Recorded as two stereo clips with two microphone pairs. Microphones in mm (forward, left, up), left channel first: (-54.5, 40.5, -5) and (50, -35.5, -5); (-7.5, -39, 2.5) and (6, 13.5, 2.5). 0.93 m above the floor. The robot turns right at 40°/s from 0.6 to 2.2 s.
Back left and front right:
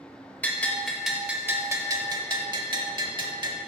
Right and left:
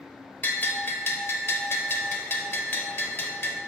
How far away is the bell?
About 0.9 m.